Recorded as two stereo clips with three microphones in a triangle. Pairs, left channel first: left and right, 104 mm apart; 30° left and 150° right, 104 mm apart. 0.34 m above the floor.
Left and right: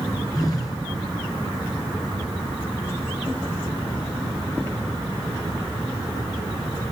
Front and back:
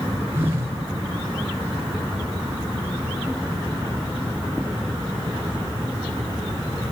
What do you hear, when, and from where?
0.3 s a phone buzzing: 145° left, 1.6 m